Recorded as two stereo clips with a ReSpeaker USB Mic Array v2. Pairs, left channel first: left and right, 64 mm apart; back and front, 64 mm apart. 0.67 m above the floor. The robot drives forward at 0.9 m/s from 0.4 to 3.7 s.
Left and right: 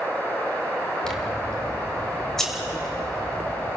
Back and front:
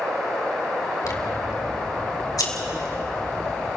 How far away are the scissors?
About 2 m.